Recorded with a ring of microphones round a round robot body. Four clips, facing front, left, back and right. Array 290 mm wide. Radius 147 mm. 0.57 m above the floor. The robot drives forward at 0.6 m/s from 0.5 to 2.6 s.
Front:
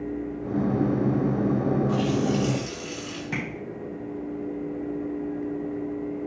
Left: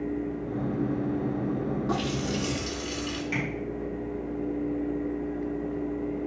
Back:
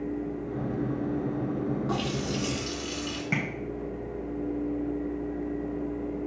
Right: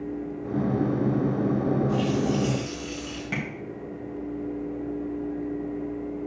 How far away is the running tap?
About 4 m.